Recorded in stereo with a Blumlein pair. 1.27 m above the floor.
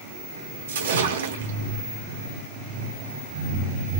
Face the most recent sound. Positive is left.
turn(degrees=-60)